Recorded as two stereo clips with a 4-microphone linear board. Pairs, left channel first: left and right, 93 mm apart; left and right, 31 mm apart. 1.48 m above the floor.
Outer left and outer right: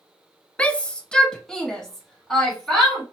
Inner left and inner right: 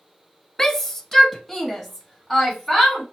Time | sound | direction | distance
0.6 | a shout | 15° left (ahead or behind) | 0.5 m